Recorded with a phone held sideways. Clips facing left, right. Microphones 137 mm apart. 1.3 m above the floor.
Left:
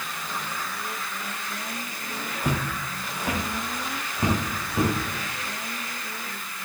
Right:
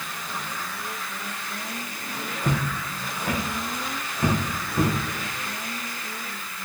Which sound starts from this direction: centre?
Footsteps, at 2.4 s.